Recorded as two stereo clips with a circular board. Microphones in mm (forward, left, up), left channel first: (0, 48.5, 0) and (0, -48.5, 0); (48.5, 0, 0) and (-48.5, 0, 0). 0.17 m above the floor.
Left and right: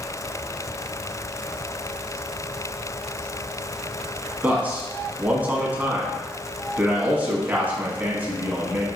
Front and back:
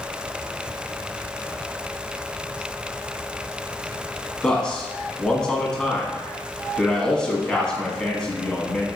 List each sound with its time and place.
4.4 s a man speaking: 65° right, 1.0 m